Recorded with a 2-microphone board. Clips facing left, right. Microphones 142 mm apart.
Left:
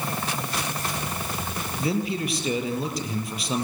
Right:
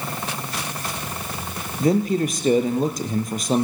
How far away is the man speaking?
About 3.5 m.